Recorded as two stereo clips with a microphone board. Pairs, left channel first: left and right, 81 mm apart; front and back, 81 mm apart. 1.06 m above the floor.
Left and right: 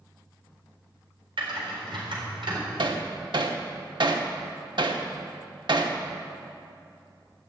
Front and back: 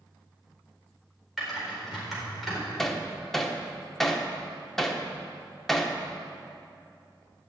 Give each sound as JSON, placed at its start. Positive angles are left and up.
{"t": 1.4, "sound": "typing on a keyboard", "azimuth_deg": -90, "distance_m": 4.0}
{"t": 2.8, "sound": "hammering", "azimuth_deg": -85, "distance_m": 1.0}